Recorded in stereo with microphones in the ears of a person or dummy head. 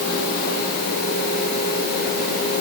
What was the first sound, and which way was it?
Only background noise.